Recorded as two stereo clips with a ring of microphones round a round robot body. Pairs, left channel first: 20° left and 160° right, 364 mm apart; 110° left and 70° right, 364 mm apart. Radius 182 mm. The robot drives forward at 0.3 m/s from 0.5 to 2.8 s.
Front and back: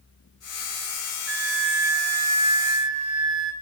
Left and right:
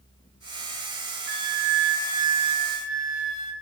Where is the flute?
100° right, 2.5 m; by 3.5 s 110° right, 2.5 m.